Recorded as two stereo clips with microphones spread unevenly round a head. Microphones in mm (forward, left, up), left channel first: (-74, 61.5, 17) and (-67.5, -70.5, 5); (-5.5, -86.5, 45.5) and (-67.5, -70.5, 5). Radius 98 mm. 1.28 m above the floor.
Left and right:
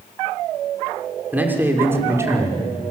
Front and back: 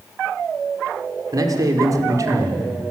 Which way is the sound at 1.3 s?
165° right.